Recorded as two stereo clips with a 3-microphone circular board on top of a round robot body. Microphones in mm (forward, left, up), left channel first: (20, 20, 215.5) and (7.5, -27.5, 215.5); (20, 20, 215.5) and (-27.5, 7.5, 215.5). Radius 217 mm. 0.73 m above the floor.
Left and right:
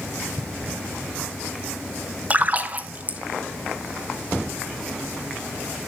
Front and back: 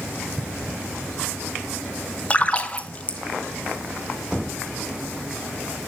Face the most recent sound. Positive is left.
turn(degrees=-50)